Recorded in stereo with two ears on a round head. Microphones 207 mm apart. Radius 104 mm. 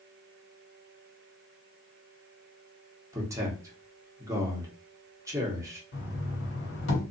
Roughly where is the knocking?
Left.